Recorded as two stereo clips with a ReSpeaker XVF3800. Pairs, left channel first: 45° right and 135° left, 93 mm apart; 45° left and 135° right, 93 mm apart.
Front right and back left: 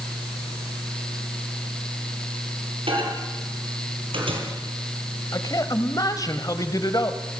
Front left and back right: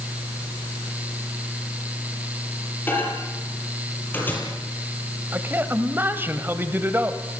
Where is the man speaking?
75° right, 1.9 m.